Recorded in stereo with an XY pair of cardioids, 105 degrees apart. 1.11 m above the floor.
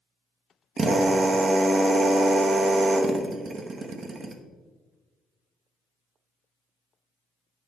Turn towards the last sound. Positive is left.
turn(degrees=-40)